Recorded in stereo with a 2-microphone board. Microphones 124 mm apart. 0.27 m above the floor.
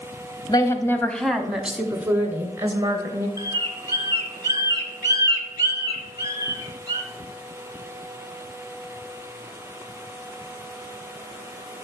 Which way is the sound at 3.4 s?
30° right (ahead or behind).